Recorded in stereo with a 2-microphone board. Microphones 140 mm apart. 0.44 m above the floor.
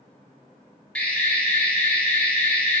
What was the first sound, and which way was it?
An alarm, 10° left (ahead or behind).